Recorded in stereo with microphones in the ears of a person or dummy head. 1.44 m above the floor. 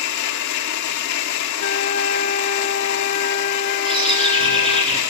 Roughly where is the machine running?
Left.